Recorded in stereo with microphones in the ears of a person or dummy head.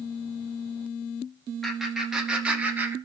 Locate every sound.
1.6 s laughter: centre (ahead or behind), 4.5 m; by 3.0 s 15° right (ahead or behind), 2.5 m